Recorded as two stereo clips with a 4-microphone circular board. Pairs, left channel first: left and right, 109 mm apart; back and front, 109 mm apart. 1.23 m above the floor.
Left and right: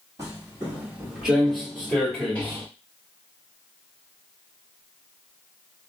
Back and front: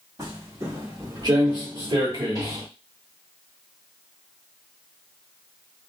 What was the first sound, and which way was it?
Footsteps, 45° right.